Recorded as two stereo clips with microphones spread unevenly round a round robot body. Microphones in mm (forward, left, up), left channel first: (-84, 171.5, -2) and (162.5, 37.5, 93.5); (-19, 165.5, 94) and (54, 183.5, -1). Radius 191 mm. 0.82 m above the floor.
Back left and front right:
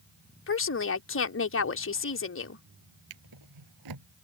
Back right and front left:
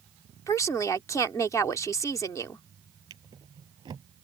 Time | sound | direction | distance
0.5 | a woman speaking | 120° left | ?
3.1 | a drawer | 35° right | ?